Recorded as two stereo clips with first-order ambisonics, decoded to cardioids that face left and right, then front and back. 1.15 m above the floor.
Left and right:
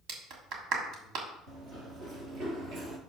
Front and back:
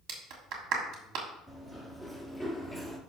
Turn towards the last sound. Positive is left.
turn(degrees=-75)